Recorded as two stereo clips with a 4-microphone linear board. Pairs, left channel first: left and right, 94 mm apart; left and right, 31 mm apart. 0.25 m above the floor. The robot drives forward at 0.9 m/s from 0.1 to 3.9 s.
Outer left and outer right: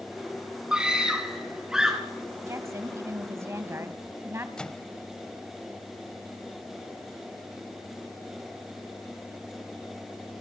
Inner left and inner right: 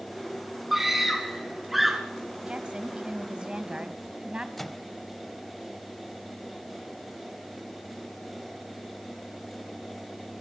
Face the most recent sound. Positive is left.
turn(degrees=10)  # may be behind; listen again after turning